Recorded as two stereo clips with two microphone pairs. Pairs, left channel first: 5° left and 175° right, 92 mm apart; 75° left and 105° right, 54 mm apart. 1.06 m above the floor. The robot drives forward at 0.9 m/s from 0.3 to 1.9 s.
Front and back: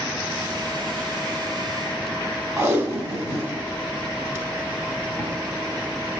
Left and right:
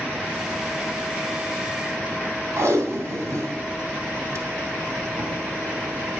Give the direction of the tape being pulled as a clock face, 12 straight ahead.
4 o'clock.